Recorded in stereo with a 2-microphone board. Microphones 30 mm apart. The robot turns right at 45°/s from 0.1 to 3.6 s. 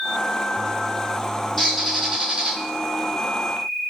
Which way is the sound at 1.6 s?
175° left.